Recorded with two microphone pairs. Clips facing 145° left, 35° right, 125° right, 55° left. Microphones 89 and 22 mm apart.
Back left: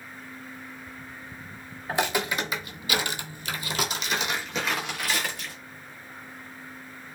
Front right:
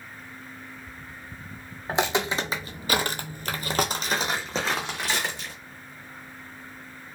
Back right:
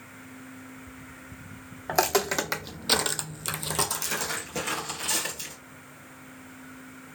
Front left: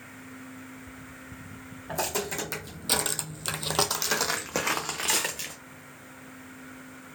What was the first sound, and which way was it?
Footsteps, 105° right.